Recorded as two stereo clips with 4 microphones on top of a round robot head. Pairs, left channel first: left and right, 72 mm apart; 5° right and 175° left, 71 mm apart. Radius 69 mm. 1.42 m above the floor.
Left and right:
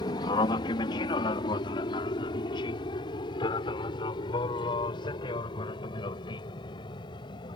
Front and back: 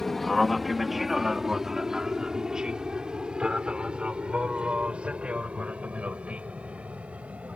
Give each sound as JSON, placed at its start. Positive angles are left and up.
{"t": 0.0, "sound": "an aircraft", "azimuth_deg": 80}